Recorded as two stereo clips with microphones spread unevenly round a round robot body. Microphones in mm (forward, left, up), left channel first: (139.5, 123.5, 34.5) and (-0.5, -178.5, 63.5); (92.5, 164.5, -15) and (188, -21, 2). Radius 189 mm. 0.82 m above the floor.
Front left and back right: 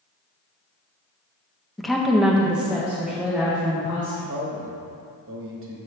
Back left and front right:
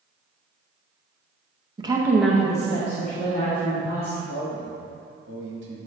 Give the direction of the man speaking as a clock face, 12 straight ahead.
2 o'clock.